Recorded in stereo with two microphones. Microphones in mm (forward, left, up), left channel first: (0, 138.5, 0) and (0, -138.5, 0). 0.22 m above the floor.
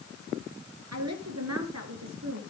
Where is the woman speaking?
65° right (ahead or behind), 3 m.